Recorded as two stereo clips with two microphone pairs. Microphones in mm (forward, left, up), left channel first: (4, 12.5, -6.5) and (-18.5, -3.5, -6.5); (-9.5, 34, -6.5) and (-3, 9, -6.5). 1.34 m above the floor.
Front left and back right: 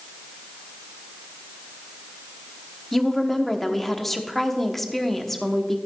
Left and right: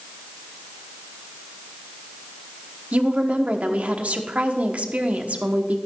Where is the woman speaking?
45° right, 0.9 m.